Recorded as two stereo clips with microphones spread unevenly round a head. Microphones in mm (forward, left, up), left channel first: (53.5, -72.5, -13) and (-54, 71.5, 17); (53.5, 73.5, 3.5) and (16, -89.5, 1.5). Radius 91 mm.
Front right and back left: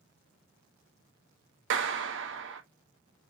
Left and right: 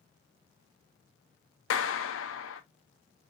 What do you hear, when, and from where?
1.7 s a clap: 100° left, 1.0 m